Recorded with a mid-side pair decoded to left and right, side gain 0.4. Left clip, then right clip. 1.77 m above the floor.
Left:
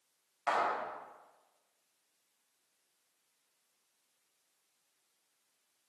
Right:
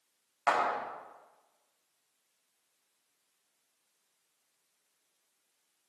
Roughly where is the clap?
Ahead right.